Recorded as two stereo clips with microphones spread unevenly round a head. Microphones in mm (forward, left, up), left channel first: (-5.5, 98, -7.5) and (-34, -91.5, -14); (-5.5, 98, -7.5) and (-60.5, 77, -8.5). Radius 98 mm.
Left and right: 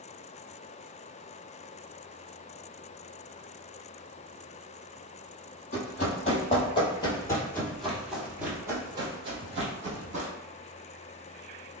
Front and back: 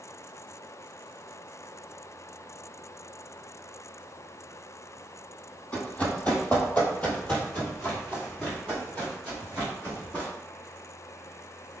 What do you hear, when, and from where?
5.7 s running footsteps: 65° left, 1.8 m; by 10.3 s 60° right, 1.9 m